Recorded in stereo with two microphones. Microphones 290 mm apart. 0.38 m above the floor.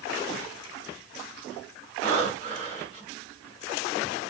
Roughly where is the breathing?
Left.